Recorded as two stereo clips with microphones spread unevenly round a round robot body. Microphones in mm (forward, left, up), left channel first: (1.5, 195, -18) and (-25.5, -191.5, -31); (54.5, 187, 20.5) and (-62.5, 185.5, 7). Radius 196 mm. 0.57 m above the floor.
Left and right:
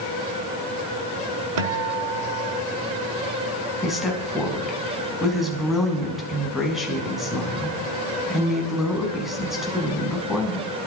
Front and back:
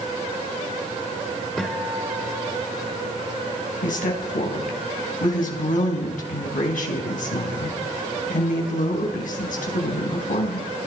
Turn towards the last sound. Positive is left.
turn(degrees=-5)